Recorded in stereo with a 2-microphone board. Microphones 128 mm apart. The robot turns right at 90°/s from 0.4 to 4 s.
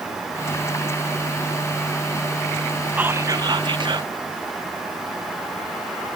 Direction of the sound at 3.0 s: 160° right.